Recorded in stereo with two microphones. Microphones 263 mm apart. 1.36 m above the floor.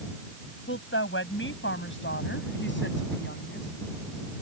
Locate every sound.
0.7 s a woman speaking: 50° left (ahead or behind); by 3.7 s 40° left (ahead or behind)